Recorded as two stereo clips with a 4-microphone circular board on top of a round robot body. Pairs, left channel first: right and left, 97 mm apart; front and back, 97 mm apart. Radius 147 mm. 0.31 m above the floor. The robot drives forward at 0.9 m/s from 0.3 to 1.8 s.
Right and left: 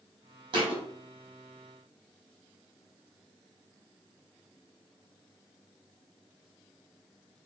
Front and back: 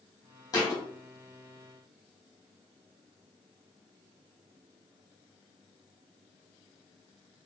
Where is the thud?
50° left, 1.6 m; by 0.8 s 60° left, 1.5 m.